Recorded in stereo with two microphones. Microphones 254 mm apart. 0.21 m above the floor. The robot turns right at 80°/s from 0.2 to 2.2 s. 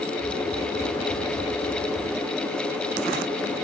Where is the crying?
I don't hear crying.